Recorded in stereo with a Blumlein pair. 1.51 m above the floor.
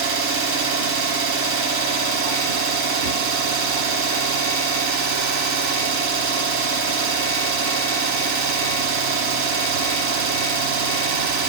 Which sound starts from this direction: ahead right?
An engine running, at 0.0 s.